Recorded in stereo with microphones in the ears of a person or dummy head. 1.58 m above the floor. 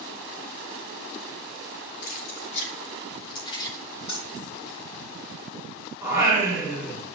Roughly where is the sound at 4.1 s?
Left.